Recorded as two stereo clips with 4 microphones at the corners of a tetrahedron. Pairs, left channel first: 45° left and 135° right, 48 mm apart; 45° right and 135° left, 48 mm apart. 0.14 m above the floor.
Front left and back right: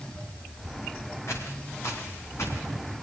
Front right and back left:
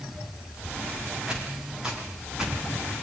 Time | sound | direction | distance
1.3 | footsteps | 60° left | 9.5 m